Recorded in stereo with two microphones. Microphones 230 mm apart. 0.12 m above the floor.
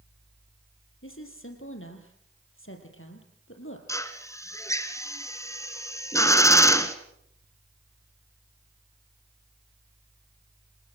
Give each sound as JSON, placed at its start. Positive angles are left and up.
{"t": 1.0, "sound": "a woman speaking", "side_deg": 65, "distance_m": 3.5}
{"t": 3.9, "sound": "a drill", "side_deg": 15, "distance_m": 1.5}